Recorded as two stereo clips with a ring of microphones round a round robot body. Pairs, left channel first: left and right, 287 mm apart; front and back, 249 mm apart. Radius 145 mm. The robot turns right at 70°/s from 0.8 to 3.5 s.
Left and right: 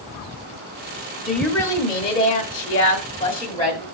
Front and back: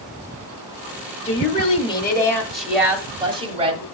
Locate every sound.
1.2 s a woman speaking: 5° right, 1.3 m; by 3.8 s 150° left, 1.3 m